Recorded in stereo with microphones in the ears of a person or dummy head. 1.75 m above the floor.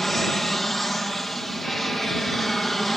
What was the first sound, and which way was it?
An aircraft, 5° left (ahead or behind).